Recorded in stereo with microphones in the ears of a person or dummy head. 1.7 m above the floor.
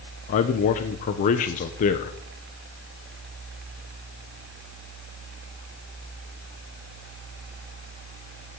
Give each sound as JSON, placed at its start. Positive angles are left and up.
{"t": 0.3, "sound": "a man speaking", "side_deg": 40, "distance_m": 0.8}